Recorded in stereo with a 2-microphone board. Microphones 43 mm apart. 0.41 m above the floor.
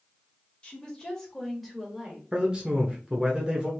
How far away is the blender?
I don't hear a blender.